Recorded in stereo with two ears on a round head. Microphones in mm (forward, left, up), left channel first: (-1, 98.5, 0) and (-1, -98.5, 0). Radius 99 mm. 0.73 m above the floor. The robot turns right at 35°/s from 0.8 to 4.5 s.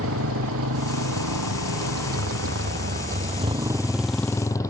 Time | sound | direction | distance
0.0 | a motorcycle | 115° right | ?